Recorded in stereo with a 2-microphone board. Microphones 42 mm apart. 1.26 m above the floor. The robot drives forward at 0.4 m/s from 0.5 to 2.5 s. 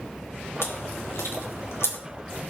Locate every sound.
0.6 s chewing: 80° left, 3 m; by 2.0 s 85° left, 3 m